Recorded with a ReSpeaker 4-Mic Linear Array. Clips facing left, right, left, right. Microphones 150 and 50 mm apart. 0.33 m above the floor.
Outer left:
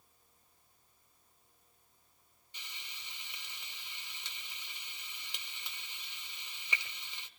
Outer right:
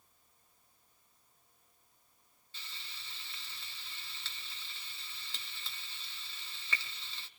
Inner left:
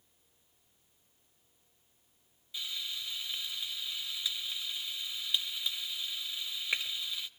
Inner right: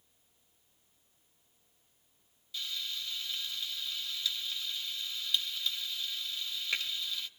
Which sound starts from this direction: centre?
Frying, at 2.5 s.